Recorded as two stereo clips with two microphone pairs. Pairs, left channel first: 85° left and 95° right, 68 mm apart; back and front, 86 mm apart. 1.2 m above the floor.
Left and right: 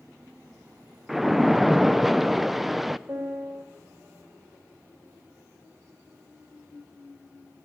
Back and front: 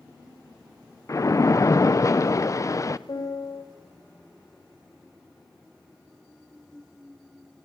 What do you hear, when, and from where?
1.1 s a splash: 175° left, 0.6 m
3.1 s a piano: 150° right, 3.5 m